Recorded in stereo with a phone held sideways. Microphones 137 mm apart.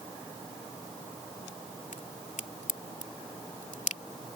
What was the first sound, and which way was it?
A crack, 70° left (ahead or behind).